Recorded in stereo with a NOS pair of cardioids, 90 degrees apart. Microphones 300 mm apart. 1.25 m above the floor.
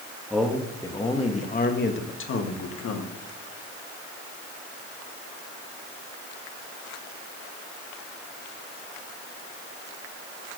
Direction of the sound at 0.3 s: Straight ahead.